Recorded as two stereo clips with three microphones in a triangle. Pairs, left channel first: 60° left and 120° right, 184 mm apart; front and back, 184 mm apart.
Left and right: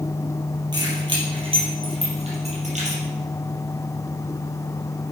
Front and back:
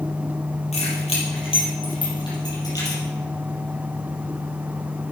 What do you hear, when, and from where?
0.7 s keys jangling: 50° right, 4 m; by 3.0 s 70° right, 4 m